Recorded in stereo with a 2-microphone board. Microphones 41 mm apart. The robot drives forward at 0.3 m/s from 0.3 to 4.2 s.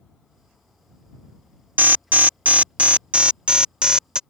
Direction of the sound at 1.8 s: 45° right (ahead or behind).